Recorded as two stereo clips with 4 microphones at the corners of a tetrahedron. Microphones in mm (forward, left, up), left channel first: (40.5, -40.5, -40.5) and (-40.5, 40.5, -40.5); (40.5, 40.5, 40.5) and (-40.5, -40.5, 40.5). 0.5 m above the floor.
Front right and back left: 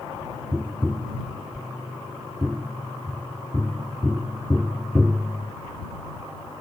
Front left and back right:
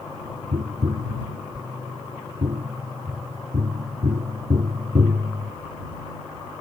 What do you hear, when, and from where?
0.5 s tapping: 145° right